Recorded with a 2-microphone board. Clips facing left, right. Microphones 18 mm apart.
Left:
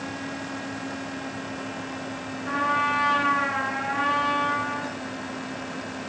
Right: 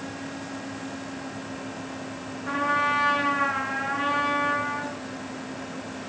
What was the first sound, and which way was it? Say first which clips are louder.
A trumpet: even; 5° left (ahead or behind).